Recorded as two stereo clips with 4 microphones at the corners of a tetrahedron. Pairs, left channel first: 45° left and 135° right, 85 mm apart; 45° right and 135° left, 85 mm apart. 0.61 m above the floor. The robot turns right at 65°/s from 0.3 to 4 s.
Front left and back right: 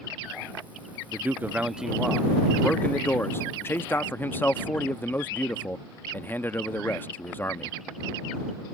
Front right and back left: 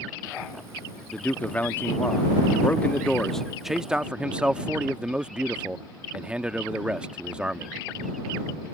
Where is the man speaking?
110° right; by 7.7 s 75° left.